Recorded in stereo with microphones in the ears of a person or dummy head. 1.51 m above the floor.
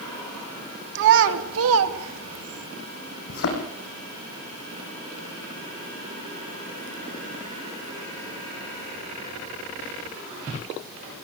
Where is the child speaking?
65° right (ahead or behind), 3 m; by 2.7 s 55° right (ahead or behind), 1.9 m.